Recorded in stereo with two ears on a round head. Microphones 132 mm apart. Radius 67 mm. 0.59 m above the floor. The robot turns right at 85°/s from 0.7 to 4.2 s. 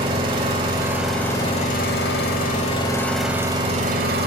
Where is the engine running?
35° right, 0.9 m; by 4.3 s 95° right, 0.9 m.